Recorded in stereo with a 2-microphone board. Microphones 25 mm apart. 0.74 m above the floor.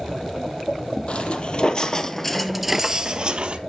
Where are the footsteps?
55° left (ahead or behind), 1.2 m; by 3.6 s 45° right (ahead or behind), 1.0 m.